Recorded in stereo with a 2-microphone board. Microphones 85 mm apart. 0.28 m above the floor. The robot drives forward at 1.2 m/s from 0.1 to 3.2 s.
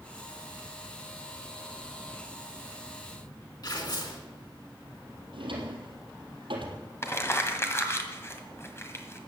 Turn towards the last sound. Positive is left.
turn(degrees=30)  # may be behind; listen again after turning